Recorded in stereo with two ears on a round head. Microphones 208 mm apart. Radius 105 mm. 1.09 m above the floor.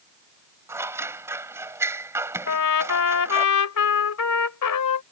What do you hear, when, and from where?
0.7 s scissors: 10° right (ahead or behind)
2.5 s a trumpet: 75° left (ahead or behind)